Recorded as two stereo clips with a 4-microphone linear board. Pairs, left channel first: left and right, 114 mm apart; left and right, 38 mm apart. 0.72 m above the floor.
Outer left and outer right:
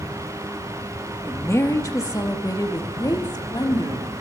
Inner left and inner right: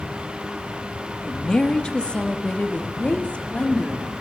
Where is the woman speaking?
20° left (ahead or behind), 1.0 m; by 4.1 s 35° left (ahead or behind), 2.0 m.